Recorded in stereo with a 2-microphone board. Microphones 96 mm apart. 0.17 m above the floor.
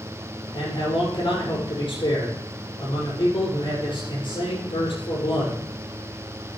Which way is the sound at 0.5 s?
60° left (ahead or behind).